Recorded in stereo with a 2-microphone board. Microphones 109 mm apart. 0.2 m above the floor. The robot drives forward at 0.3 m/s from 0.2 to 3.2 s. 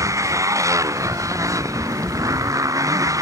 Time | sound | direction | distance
0.0 | a motorcycle | 30° right (ahead or behind) | ?